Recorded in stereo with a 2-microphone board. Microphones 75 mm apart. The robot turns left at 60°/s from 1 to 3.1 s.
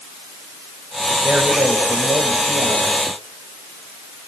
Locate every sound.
1.2 s a man speaking: 15° right, 4.5 m; by 3.0 s 115° right, 4.5 m